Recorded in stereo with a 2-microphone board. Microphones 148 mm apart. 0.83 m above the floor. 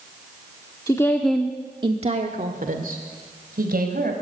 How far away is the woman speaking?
About 1.6 m.